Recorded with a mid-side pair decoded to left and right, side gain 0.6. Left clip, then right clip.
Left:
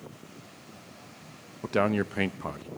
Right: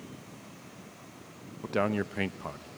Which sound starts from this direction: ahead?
A man speaking, at 1.6 s.